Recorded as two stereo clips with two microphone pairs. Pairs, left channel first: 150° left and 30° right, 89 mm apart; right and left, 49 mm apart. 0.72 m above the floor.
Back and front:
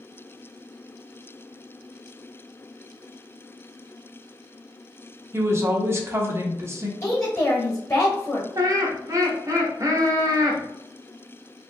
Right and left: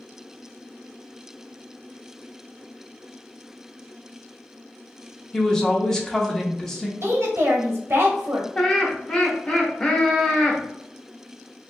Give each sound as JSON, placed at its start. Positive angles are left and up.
{"t": 5.3, "sound": "a woman speaking", "azimuth_deg": -25, "distance_m": 0.7}
{"t": 7.0, "sound": "a woman speaking", "azimuth_deg": 105, "distance_m": 1.2}
{"t": 8.6, "sound": "laughter", "azimuth_deg": -25, "distance_m": 1.0}